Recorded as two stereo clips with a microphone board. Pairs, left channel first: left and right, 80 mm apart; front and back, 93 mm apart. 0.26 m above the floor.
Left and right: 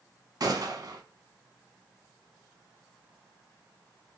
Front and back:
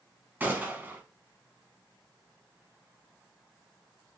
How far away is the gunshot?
About 0.7 m.